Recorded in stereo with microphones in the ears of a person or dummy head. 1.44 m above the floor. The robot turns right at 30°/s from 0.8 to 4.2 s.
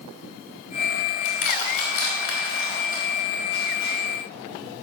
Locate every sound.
1.2 s crushing: 75° left (ahead or behind), 2.5 m; by 4.0 s 15° left (ahead or behind), 2.5 m